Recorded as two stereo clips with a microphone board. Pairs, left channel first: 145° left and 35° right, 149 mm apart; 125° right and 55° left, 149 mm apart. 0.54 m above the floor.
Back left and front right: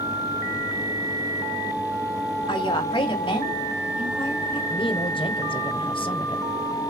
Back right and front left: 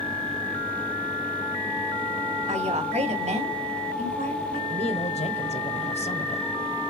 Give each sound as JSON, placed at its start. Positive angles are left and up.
{"t": 2.5, "sound": "a woman speaking", "azimuth_deg": 90, "distance_m": 3.0}
{"t": 4.7, "sound": "a woman speaking", "azimuth_deg": -165, "distance_m": 1.7}